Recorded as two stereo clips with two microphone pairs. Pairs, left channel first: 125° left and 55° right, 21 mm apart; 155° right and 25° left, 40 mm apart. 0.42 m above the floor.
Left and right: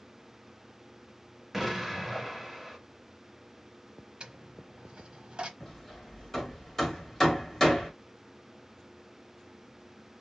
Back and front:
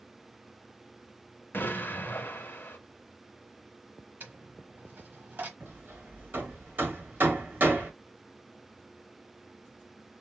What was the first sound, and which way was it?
An explosion, 145° right.